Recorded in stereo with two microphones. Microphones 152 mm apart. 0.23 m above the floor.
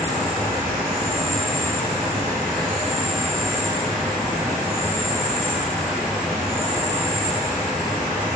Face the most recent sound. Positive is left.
turn(degrees=5)  # may be behind; listen again after turning